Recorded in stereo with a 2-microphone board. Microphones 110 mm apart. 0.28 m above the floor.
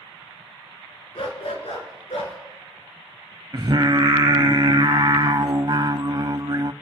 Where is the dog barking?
60° left (ahead or behind), 1.7 m; by 2.4 s 80° left, 2 m.